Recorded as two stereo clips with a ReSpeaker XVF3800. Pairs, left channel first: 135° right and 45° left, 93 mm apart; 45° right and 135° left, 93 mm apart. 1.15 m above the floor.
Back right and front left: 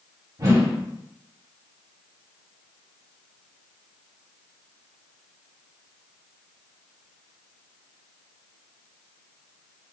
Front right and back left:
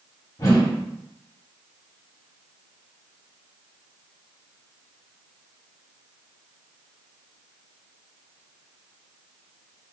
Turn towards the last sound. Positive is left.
turn(degrees=0)